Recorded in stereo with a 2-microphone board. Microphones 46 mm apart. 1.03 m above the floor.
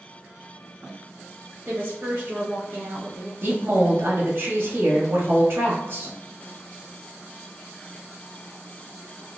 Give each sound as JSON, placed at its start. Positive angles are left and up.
{"t": 1.6, "sound": "a woman speaking", "side_deg": -50, "distance_m": 0.9}
{"t": 3.4, "sound": "a woman speaking", "side_deg": -55, "distance_m": 1.2}